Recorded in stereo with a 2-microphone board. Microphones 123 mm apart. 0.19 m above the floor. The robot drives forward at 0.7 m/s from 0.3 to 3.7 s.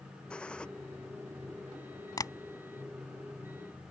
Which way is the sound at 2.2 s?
30° left (ahead or behind).